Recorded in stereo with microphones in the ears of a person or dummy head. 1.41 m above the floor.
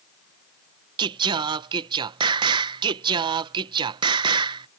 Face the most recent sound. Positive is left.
turn(degrees=-20)  # may be behind; listen again after turning